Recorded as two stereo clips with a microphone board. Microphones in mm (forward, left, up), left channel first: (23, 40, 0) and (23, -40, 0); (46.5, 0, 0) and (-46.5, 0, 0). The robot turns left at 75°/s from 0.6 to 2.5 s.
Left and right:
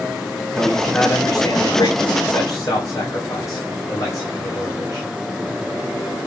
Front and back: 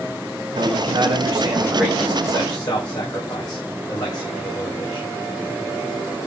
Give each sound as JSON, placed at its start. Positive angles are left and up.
{"t": 0.6, "sound": "a man speaking", "azimuth_deg": -175, "distance_m": 8.0}